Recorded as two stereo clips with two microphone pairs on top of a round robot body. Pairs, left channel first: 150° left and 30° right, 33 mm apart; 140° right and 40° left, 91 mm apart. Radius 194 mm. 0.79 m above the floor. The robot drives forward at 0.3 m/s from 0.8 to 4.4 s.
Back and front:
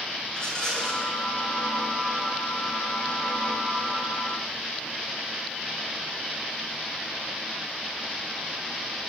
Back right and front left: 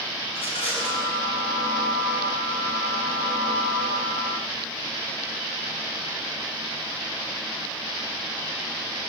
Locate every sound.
0.3 s a rattle: 135° right, 9 m